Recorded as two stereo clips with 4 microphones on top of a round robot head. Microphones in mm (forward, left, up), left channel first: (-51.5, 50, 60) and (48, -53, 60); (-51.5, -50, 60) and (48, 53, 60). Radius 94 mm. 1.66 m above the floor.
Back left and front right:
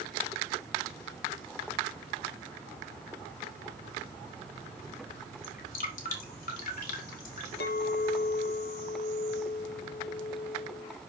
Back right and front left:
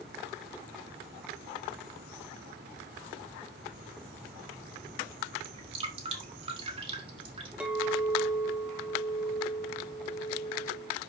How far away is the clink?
About 0.7 m.